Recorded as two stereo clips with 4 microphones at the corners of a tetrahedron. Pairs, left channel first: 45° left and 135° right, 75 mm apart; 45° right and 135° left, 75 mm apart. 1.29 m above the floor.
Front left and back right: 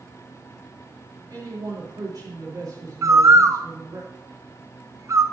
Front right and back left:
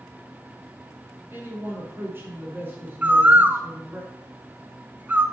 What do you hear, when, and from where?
1.3 s a man speaking: 165° right, 4 m
3.0 s a bird: 165° right, 0.6 m